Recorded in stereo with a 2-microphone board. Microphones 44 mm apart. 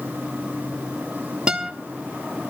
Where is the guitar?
20° right (ahead or behind), 1.7 m.